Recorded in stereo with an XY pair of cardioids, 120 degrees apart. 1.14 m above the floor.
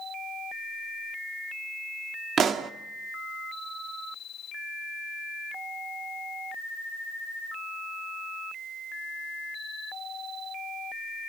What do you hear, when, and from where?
2.4 s a pop: 50° right, 1.5 m